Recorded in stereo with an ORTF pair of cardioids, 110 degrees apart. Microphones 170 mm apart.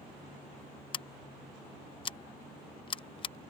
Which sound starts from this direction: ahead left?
Scissors, at 0.9 s.